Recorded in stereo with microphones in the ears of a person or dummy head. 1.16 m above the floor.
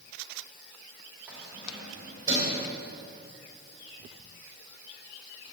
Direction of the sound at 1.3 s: 10° right (ahead or behind).